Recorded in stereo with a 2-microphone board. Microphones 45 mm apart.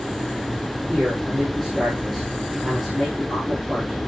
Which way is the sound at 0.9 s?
Centre (ahead or behind).